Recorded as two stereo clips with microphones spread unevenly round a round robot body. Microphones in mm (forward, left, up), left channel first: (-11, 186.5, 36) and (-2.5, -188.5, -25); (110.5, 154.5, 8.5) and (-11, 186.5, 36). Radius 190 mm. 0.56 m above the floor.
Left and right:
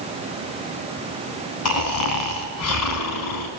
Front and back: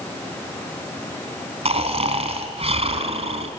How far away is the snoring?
About 3.5 m.